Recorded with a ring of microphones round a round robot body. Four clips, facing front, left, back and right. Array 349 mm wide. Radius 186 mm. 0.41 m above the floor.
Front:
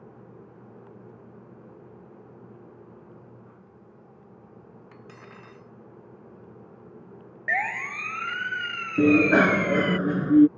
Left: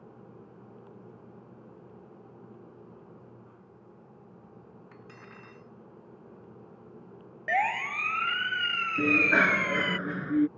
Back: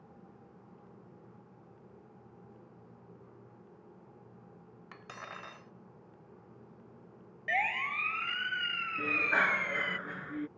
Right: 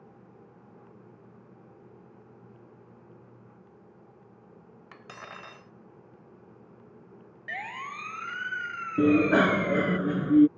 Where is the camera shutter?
I don't hear a camera shutter.